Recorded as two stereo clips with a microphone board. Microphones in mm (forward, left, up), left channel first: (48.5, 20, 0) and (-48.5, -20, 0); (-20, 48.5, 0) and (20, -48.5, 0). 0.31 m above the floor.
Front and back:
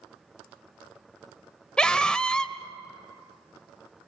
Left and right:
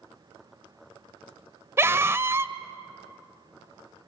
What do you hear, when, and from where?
1.8 s a scream: 50° right, 1.0 m